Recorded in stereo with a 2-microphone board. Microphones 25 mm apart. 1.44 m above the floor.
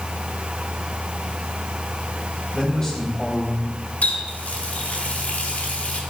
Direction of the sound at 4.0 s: 80° left.